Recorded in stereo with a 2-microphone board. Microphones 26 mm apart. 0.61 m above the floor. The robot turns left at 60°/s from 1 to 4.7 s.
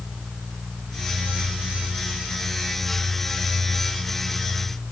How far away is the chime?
No chime in this recording.